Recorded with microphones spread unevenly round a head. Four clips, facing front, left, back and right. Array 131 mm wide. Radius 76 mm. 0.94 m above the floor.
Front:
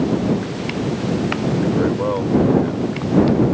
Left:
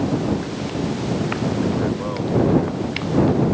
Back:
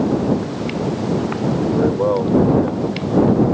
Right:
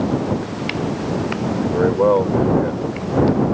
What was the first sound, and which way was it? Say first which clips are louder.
A man speaking: right 8 dB, back 2 dB; 115° right.